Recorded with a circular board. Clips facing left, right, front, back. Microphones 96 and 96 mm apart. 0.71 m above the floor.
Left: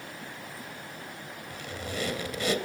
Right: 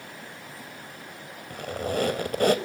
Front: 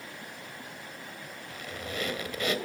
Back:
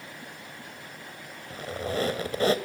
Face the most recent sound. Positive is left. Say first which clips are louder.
# right 9 dB, back 8 dB
turn(degrees=-125)